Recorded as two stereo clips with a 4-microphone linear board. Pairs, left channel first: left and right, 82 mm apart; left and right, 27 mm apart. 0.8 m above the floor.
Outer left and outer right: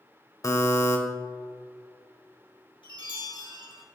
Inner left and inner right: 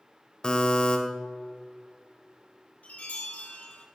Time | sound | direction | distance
0.4 | a buzzer | 40° left (ahead or behind) | 1.2 m
2.8 | a chime | 85° left | 3 m